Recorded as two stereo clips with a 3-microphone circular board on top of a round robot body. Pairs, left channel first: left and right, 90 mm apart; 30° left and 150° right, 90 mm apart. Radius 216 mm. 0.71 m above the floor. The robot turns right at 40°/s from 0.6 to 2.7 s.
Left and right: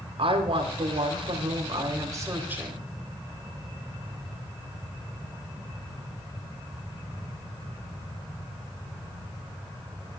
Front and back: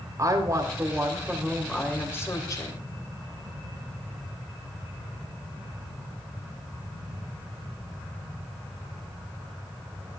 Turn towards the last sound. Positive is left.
turn(degrees=-15)